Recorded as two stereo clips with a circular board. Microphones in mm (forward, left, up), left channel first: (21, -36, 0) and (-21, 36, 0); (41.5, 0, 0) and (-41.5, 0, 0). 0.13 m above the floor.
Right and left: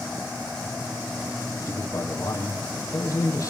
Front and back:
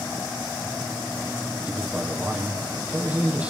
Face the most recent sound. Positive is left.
turn(degrees=-115)